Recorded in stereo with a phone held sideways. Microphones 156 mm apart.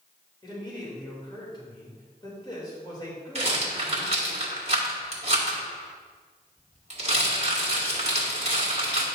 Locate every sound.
0.4 s a man speaking: 30° left (ahead or behind), 2.5 m
3.4 s a rattle: 45° right (ahead or behind), 1.8 m